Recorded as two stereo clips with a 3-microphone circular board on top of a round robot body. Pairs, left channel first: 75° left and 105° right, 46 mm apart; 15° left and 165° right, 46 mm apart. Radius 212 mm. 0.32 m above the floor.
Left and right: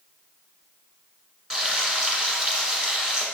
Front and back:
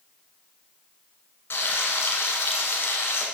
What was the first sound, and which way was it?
Frying, 30° right.